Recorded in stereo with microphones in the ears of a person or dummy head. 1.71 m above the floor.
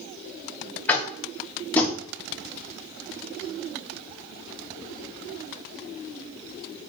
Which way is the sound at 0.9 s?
15° left (ahead or behind).